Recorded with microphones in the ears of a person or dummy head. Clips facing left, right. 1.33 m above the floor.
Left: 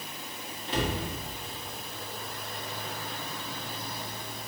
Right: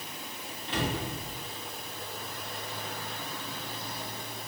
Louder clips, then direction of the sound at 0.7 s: Left 1 dB; 70° left (ahead or behind).